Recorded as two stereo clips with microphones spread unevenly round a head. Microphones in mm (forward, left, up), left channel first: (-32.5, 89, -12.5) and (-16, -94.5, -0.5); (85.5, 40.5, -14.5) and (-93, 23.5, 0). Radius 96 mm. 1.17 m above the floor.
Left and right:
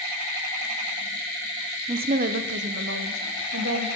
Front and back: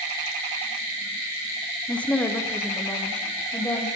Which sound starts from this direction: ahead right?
A woman speaking, at 1.9 s.